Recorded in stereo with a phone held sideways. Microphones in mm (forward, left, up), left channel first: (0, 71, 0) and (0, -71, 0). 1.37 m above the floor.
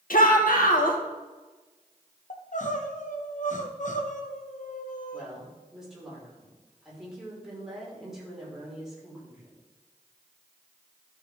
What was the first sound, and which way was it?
A shout, 80° left.